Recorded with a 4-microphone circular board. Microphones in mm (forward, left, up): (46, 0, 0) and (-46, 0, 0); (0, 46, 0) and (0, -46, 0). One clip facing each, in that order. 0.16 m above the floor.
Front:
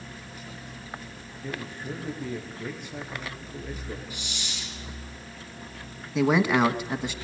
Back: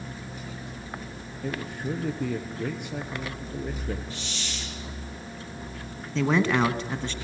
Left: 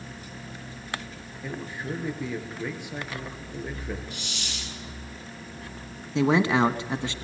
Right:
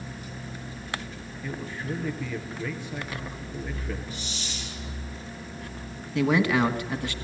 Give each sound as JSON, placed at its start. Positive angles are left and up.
{"t": 1.4, "sound": "a man speaking", "azimuth_deg": 160, "distance_m": 3.5}
{"t": 4.1, "sound": "a hiss", "azimuth_deg": 75, "distance_m": 3.5}
{"t": 6.2, "sound": "a man speaking", "azimuth_deg": 65, "distance_m": 1.3}